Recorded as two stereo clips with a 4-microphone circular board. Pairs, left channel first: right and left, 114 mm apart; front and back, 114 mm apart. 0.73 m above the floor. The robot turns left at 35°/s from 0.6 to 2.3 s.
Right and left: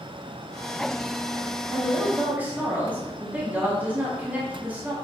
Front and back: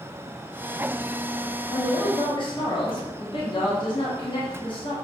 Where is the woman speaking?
40° left, 1.3 m; by 4.9 s 20° left, 1.3 m.